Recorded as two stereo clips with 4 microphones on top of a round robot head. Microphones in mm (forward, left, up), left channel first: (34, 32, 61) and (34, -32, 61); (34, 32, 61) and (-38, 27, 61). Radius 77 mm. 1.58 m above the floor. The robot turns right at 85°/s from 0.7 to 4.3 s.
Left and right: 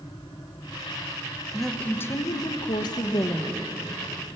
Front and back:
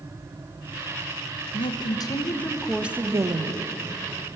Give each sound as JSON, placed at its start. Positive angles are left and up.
{"t": 1.5, "sound": "a woman speaking", "azimuth_deg": -5, "distance_m": 1.8}